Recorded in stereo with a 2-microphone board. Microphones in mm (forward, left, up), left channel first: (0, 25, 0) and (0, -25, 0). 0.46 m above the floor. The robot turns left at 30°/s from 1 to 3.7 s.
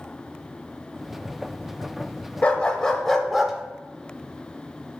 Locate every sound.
2.4 s a dog barking: 25° left, 0.6 m; by 3.5 s 5° right, 0.6 m